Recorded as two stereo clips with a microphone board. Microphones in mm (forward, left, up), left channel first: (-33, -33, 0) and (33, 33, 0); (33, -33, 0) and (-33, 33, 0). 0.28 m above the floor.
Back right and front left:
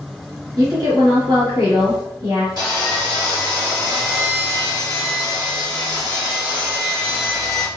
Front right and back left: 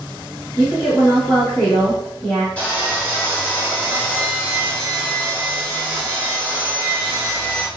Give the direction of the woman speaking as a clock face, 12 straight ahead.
11 o'clock.